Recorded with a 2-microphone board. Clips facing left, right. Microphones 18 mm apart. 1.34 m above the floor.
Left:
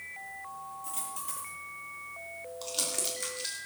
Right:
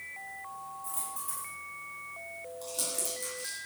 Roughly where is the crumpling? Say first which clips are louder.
Left 3 dB; left.